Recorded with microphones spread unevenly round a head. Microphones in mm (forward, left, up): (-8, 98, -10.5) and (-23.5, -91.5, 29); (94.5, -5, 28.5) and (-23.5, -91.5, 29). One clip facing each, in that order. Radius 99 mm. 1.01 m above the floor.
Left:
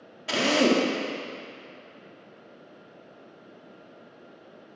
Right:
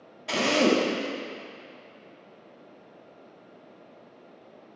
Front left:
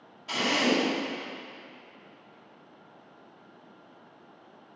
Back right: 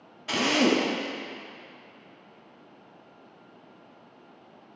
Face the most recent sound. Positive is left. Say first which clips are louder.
# even, back right 3 dB
turn(degrees=170)